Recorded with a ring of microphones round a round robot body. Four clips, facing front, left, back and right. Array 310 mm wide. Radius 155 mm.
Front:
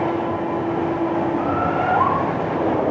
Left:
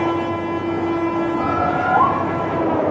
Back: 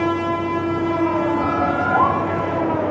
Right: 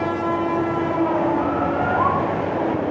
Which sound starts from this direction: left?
A bird, at 1.4 s.